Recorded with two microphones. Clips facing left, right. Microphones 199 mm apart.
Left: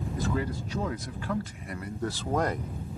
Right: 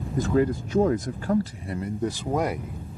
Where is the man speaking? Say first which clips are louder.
Right 10 dB; 50° right (ahead or behind); by 2.8 s 5° right (ahead or behind).